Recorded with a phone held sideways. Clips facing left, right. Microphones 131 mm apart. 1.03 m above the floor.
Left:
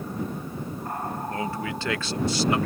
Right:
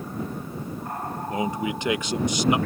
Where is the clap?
I don't hear a clap.